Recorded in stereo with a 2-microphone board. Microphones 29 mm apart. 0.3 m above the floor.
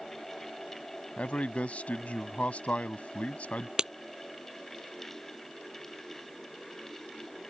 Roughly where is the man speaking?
Left.